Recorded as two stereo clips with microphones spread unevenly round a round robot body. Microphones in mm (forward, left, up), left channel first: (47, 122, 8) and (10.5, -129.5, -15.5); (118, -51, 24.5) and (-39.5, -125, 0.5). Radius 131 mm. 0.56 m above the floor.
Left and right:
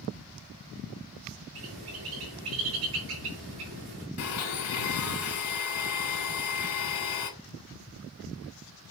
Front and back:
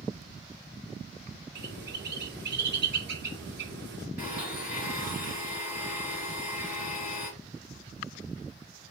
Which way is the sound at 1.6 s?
140° right.